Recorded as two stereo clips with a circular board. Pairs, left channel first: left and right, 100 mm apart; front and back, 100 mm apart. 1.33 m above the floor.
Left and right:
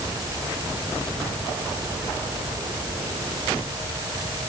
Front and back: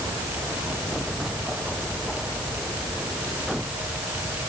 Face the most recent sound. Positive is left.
No sound to turn to.